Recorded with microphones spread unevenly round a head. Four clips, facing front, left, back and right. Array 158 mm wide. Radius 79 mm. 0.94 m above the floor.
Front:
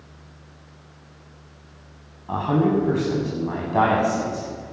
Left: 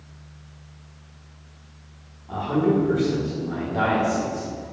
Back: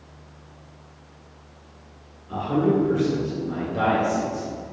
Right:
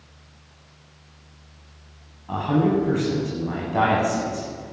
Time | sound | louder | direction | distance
2.3 | a man speaking | right 1 dB, front 1 dB | 20° right | 7.5 m